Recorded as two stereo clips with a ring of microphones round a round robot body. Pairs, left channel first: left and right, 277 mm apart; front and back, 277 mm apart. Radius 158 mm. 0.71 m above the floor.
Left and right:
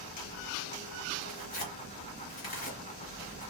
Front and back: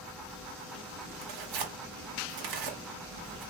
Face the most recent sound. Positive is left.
turn(degrees=155)